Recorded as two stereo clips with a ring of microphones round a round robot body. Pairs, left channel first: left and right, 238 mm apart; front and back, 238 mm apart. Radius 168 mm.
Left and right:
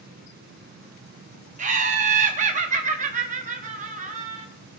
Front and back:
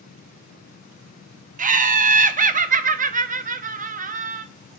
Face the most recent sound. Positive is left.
turn(degrees=-140)